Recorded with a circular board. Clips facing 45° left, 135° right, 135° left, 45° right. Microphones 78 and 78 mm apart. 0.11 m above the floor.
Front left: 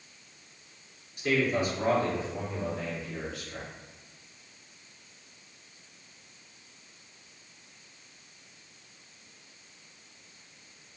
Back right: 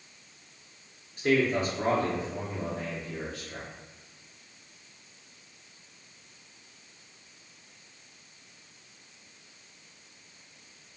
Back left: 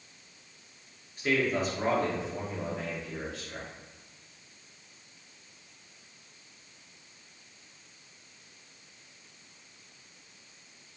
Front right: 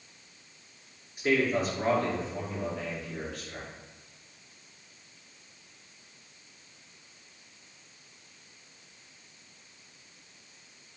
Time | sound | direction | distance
1.2 | a man speaking | 115° right | 1.5 m